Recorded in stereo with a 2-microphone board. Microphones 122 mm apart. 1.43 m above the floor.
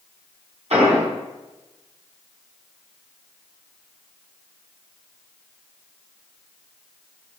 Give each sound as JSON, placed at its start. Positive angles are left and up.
{"t": 0.7, "sound": "an explosion", "side_deg": -60, "distance_m": 3.5}